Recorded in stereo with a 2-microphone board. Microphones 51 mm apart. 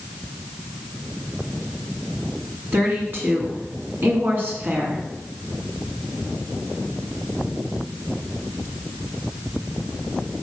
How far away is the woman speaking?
About 2 m.